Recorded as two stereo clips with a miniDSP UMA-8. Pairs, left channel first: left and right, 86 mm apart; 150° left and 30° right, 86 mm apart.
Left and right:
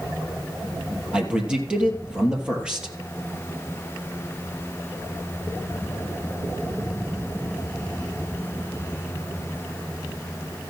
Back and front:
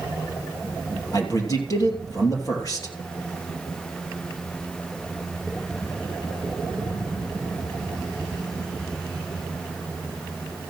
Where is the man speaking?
170° right, 3 m.